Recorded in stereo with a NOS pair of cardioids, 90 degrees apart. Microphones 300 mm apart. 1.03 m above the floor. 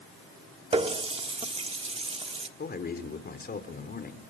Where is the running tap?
20° right, 1.4 m.